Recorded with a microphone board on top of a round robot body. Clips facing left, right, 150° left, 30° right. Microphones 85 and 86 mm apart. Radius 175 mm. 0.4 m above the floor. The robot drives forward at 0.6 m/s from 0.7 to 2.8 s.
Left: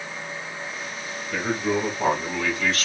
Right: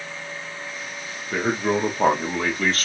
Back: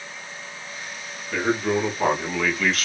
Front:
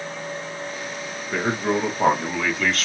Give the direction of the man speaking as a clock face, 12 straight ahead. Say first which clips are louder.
Right 2 dB, even; 3 o'clock.